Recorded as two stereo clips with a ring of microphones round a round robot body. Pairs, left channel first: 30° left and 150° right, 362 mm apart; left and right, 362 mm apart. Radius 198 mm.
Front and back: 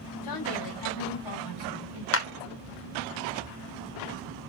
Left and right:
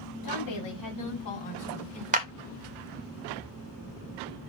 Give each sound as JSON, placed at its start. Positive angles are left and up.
{"t": 0.2, "sound": "a woman speaking", "azimuth_deg": 55, "distance_m": 5.0}
{"t": 2.1, "sound": "a clap", "azimuth_deg": -20, "distance_m": 1.7}